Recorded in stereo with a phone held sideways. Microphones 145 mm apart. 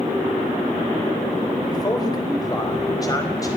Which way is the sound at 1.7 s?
30° left (ahead or behind).